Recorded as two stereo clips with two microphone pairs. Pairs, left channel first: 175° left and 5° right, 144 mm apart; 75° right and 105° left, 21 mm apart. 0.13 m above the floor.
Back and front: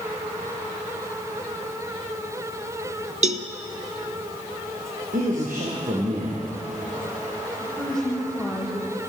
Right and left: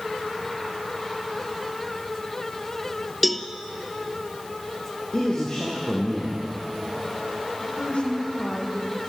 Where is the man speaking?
20° right, 5.5 m.